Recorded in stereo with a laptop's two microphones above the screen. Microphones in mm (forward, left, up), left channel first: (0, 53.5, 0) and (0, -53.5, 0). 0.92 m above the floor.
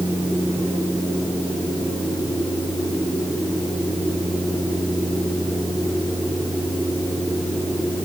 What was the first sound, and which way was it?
Only background noise.